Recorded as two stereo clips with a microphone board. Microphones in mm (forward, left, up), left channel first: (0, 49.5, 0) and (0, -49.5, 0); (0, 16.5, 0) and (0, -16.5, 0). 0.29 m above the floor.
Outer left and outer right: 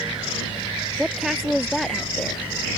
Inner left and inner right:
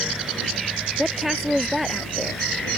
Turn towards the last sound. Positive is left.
turn(degrees=10)  # may be behind; listen again after turning